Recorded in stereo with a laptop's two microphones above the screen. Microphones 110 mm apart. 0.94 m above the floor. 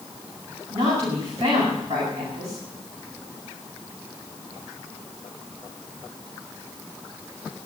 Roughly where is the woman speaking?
Right.